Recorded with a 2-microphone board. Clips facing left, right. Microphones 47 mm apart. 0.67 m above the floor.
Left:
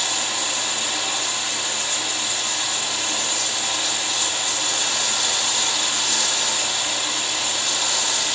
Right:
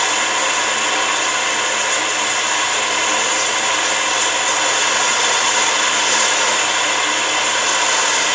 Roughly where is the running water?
Right.